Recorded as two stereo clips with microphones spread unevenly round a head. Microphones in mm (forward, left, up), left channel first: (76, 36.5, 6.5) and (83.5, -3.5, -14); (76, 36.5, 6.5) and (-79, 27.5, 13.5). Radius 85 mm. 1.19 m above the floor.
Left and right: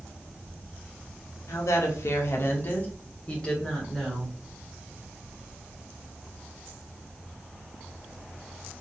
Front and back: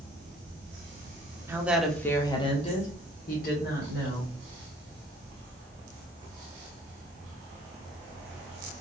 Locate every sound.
1.5 s a woman speaking: 110° left, 0.6 m; by 4.3 s 15° left, 1.4 m